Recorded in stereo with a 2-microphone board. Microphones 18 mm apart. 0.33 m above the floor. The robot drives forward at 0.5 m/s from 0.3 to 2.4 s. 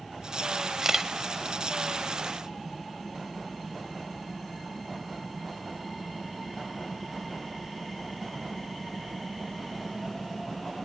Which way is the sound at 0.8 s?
25° right (ahead or behind).